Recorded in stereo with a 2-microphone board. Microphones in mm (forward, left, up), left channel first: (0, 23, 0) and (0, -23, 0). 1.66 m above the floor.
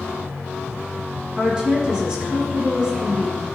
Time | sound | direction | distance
1.4 | a woman speaking | 15° right (ahead or behind) | 1.2 m